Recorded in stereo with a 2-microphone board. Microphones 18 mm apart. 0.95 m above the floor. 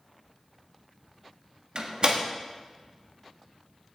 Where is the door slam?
60° right (ahead or behind), 1.3 m.